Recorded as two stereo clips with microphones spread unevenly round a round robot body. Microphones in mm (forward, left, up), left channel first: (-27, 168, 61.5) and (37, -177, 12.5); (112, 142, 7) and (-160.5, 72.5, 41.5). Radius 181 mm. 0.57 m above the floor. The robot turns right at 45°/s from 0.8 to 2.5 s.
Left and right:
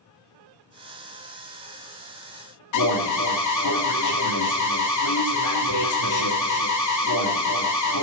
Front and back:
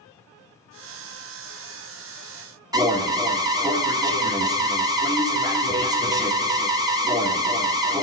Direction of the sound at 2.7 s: 115° left.